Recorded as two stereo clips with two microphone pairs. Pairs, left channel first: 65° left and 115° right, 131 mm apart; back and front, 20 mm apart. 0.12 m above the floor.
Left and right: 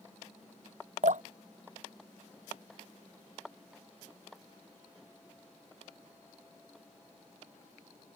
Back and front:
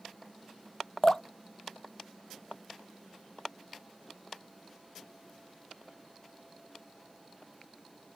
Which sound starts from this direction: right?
Dripping, at 1.0 s.